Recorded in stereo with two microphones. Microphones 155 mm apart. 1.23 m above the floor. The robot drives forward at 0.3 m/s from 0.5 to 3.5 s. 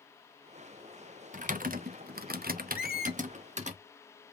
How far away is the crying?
I don't hear crying.